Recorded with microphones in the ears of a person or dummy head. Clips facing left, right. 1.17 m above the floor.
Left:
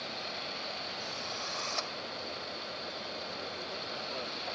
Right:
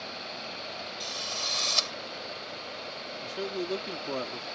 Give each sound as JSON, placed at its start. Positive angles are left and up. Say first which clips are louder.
{"t": 1.0, "sound": "a drill", "louder": "right 2 dB", "side_deg": -45}
{"t": 3.2, "sound": "a man speaking", "louder": "right 9 dB", "side_deg": -80}